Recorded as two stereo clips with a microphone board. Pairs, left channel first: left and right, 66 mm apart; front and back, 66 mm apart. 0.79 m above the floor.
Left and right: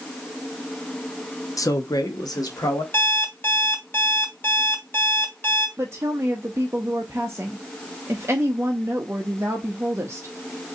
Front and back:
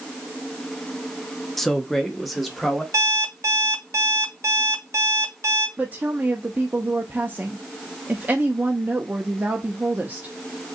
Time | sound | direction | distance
1.6 | a man speaking | 85° left | 0.6 m
2.9 | an alarm clock | 145° left | 1.1 m
5.8 | a woman speaking | 120° right | 0.7 m